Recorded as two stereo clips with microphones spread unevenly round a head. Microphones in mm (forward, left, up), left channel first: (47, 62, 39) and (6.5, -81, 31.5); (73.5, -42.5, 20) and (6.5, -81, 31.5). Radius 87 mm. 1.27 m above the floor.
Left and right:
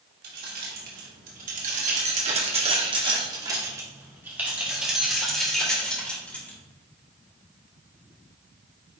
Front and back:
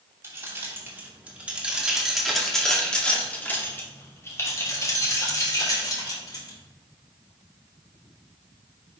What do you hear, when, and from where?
0.2 s keys jangling: 95° right, 3 m; by 6.6 s 5° right, 4 m